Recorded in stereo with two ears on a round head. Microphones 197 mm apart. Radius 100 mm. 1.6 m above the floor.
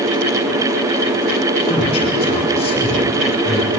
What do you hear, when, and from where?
1.6 s a man speaking: 20° left (ahead or behind), 4 m